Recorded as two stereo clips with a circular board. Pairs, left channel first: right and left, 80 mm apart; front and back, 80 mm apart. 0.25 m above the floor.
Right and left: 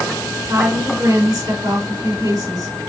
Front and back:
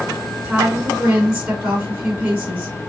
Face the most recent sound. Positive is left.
turn(degrees=105)